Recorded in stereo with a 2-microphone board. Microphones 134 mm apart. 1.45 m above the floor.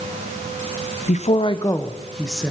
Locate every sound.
1.1 s a woman speaking: 65° left (ahead or behind), 0.8 m; by 2.5 s centre (ahead or behind), 1.7 m